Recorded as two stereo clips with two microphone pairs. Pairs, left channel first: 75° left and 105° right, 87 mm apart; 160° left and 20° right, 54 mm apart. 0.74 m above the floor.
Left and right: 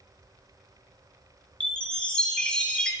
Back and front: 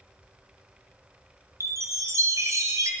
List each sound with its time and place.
1.6 s a chime: 5° right, 1.5 m